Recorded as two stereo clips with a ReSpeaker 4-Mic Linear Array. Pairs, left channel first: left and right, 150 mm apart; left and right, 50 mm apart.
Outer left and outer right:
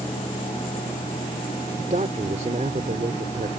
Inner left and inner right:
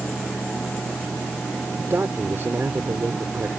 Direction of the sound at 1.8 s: 55° right (ahead or behind).